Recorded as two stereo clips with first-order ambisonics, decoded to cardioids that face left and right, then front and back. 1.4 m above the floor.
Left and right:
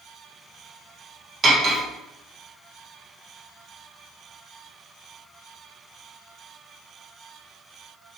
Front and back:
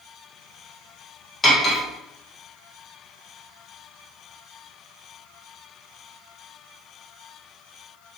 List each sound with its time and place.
1.4 s cutlery clinking: 55° right, 0.6 m